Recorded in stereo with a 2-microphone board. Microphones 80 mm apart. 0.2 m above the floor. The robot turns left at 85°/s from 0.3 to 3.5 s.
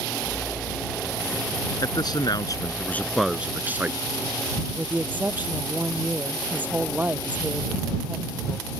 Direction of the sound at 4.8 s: 20° right (ahead or behind).